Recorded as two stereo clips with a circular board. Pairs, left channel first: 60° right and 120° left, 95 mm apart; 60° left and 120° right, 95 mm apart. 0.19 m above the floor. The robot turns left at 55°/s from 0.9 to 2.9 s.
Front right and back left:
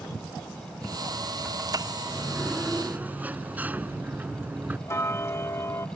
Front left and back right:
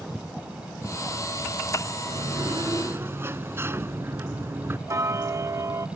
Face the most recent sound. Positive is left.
turn(degrees=-95)